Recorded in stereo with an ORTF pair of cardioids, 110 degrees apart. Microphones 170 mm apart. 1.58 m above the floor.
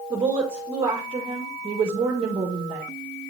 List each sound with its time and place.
0.1 s a woman speaking: 35° right, 1.6 m